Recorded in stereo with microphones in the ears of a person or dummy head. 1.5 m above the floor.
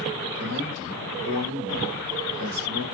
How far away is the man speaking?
About 2 m.